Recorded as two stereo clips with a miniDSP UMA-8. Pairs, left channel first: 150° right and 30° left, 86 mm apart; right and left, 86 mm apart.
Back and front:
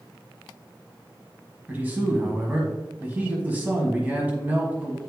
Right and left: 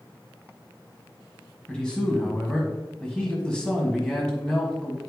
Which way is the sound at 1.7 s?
20° right.